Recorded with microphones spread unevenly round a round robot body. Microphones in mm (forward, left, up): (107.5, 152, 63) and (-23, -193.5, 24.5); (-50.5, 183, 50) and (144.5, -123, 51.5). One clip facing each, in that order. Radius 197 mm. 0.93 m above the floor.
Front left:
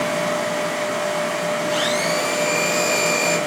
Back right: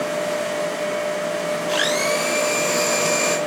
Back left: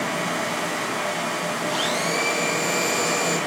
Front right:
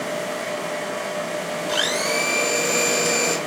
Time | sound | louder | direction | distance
1.7 | a blender | even, front right 3 dB | 60° right | 3.5 m